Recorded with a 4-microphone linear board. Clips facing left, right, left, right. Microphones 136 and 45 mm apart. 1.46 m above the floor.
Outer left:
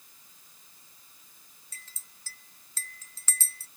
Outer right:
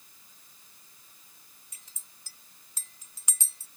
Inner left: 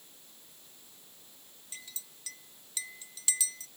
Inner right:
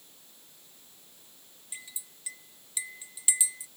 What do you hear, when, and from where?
1.7 s a clink: 15° right (ahead or behind)